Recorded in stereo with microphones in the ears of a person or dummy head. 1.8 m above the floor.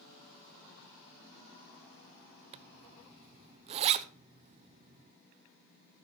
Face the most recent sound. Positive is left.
turn(degrees=-35)  # may be behind; listen again after turning